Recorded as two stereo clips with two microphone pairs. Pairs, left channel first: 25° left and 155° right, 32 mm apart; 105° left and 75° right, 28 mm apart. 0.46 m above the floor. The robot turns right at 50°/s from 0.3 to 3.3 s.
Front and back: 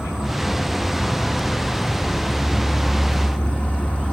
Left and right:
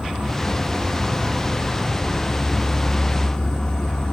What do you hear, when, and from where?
0.0 s an insect: 100° right, 1.6 m; by 4.1 s 50° left, 1.6 m